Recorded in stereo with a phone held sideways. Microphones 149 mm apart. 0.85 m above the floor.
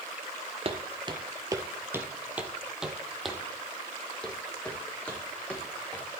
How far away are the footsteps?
About 1.1 m.